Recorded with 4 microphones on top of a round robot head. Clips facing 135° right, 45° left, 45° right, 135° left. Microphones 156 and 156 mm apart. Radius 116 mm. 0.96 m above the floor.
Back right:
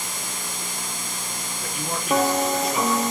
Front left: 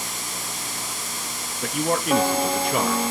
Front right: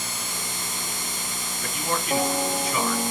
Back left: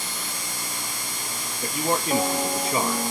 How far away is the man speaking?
About 1.2 m.